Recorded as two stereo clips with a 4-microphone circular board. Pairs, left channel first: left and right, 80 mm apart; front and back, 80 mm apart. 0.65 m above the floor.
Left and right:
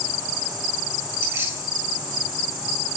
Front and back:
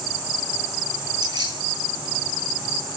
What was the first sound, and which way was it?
Keys jangling, 150° right.